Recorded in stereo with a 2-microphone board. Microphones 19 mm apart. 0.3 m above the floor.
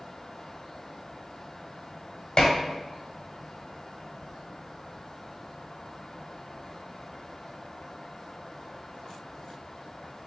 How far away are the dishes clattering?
About 1.0 m.